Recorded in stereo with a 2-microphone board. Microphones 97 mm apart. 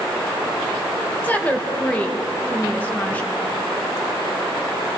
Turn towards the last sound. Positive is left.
turn(degrees=15)  # may be behind; listen again after turning